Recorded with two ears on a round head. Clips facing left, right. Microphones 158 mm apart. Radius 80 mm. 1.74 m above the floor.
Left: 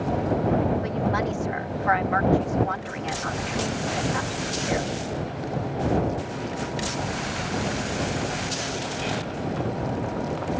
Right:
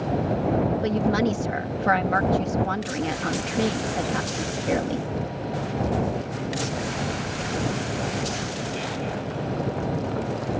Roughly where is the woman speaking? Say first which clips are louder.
Right 3 dB; right.